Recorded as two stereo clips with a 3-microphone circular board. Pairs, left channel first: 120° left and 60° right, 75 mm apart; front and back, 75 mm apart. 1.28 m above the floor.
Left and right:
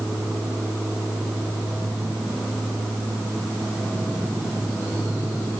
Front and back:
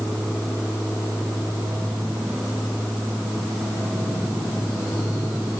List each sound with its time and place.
Only background noise.